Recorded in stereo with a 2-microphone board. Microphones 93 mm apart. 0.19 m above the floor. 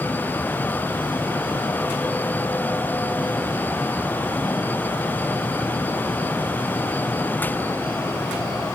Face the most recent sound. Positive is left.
No sound to turn to.